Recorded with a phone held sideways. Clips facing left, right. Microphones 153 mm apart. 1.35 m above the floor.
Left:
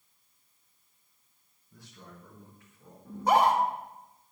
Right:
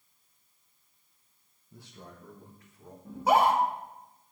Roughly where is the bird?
No bird in this recording.